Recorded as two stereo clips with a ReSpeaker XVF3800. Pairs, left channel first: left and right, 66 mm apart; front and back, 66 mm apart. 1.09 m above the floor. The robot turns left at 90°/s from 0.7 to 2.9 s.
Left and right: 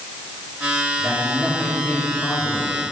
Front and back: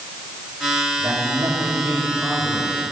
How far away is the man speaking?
About 2.5 m.